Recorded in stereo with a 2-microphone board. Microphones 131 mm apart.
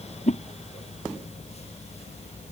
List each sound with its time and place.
0.3 s a whoosh: 60° left (ahead or behind)